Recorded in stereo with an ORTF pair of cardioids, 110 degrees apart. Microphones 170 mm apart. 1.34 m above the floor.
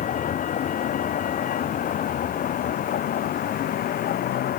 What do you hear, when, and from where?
0.0 s a vehicle: 50° left; by 4.6 s 60° left